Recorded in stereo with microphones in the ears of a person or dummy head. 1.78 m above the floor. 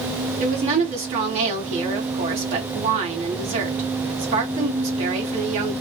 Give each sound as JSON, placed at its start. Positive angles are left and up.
{"t": 0.4, "sound": "a woman speaking", "side_deg": -40, "distance_m": 1.2}